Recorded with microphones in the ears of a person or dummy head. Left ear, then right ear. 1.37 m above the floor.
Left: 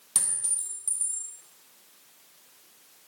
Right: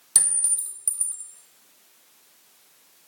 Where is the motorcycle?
No motorcycle in this recording.